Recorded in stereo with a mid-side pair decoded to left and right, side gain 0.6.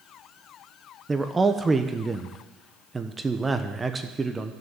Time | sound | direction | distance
1.1 | a man speaking | 15° right | 1.1 m